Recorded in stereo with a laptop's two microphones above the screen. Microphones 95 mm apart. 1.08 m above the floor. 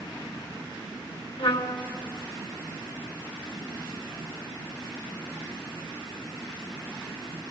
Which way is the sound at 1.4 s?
75° left (ahead or behind).